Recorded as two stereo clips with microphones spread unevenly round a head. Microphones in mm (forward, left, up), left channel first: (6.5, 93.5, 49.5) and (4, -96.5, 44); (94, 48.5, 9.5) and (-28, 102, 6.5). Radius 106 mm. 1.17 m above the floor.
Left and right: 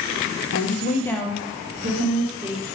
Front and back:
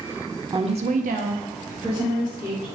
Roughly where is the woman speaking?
Left.